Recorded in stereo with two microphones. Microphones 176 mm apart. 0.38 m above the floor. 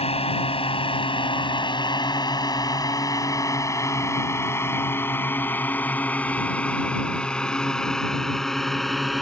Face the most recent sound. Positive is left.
turn(degrees=0)  # may be behind; listen again after turning